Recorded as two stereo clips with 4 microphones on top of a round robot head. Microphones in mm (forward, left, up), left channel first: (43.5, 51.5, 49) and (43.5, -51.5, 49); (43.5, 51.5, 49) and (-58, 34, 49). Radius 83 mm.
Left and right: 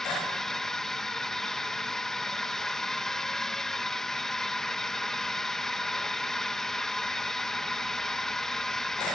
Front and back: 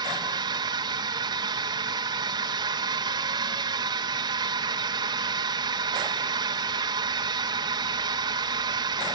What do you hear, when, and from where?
0.0 s a drone: 175° left